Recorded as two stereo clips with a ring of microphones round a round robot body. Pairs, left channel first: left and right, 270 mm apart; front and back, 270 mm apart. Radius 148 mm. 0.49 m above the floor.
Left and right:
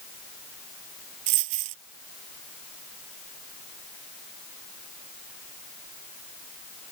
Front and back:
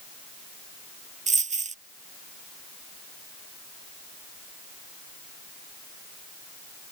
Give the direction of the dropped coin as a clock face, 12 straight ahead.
4 o'clock.